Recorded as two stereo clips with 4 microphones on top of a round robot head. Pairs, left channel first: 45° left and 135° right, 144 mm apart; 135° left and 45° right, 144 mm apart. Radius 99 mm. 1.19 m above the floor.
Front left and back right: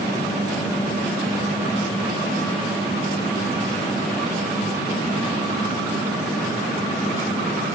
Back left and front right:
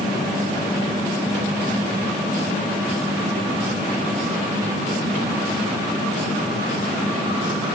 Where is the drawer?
I don't hear a drawer.